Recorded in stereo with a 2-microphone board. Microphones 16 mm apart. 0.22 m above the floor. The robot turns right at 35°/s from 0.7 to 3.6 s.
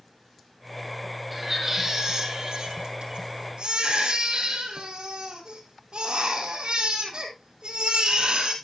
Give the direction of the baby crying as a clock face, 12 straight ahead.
6 o'clock.